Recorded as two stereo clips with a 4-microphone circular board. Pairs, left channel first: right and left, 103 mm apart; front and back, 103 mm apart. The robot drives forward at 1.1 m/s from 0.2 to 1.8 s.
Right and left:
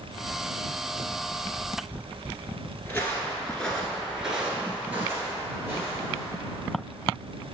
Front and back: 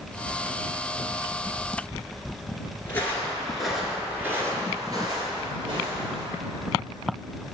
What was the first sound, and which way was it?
Footsteps, 40° right.